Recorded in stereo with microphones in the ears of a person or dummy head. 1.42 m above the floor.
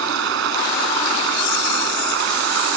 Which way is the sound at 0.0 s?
70° right (ahead or behind).